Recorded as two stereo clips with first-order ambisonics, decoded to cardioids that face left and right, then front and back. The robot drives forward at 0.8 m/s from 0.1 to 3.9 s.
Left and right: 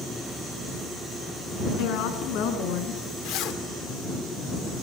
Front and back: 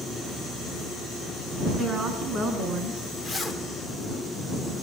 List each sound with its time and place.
1.8 s a woman speaking: 115° left, 5.5 m; by 3.1 s 125° left, 6 m
3.2 s a zipper: 90° left, 2 m; by 3.6 s 95° left, 2 m